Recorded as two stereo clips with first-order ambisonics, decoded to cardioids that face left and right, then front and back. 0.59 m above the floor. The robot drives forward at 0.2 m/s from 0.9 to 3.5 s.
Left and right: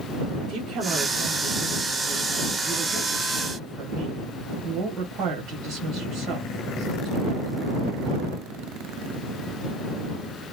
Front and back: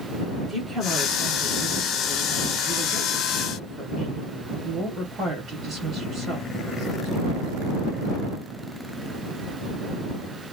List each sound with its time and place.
0.4 s a woman speaking: 100° right, 1.3 m; by 7.8 s 125° right, 1.4 m